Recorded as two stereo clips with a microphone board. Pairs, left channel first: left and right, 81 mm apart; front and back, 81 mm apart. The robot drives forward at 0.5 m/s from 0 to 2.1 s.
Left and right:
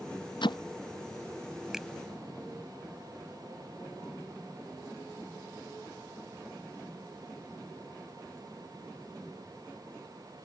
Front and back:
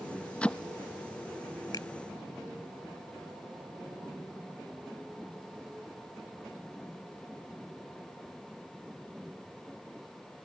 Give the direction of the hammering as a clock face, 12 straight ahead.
9 o'clock.